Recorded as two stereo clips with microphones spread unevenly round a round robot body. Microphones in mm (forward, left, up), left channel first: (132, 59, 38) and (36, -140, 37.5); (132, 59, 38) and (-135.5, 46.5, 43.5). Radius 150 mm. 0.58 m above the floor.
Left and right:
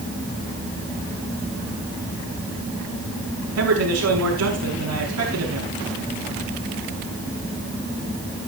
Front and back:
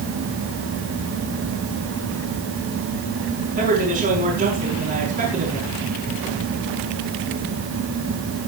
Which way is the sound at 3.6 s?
110° right.